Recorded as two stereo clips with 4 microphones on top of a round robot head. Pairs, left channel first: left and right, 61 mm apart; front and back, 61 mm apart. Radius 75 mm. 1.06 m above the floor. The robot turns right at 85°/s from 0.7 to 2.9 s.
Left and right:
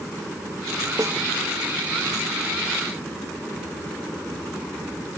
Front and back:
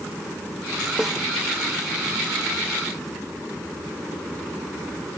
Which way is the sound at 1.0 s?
100° right.